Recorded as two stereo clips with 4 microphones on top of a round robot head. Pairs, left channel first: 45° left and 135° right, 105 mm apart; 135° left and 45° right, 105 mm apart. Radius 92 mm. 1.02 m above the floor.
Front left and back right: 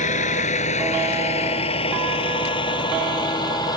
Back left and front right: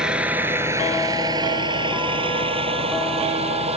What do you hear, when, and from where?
0.0 s a vehicle: 40° left; by 3.8 s 15° right